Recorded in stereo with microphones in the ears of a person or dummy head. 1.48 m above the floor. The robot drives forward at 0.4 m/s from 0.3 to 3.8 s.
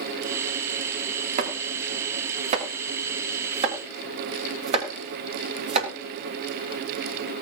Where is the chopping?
50° right (ahead or behind), 3 m; by 5.9 s 40° right (ahead or behind), 3.5 m.